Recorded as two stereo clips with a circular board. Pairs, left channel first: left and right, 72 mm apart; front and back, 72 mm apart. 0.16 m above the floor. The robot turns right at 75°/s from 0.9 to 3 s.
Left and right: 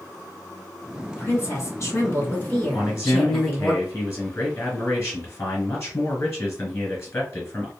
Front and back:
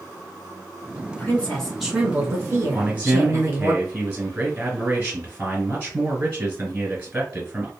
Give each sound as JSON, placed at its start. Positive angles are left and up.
{"t": 1.1, "sound": "a woman speaking", "azimuth_deg": 45, "distance_m": 1.5}
{"t": 2.7, "sound": "a man speaking", "azimuth_deg": 110, "distance_m": 1.4}